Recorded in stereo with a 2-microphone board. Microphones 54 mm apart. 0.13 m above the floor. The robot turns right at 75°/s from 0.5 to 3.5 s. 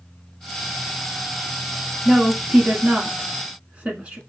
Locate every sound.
2.0 s a woman speaking: 10° right (ahead or behind), 1.4 m; by 4.2 s 25° right (ahead or behind), 1.4 m